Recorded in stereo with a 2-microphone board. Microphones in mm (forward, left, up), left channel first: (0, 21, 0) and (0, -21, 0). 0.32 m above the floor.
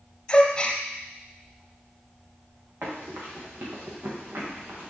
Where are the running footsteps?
70° right (ahead or behind), 3.5 m; by 4.9 s 55° right (ahead or behind), 3 m.